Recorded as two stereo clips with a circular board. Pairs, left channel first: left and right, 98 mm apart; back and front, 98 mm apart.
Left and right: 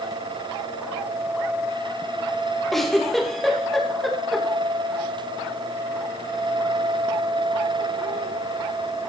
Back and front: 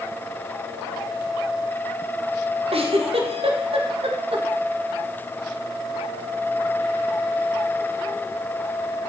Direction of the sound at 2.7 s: Straight ahead.